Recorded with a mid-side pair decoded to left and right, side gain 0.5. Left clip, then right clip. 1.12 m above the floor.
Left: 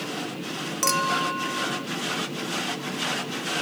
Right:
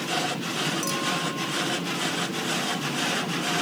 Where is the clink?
50° left, 0.5 m.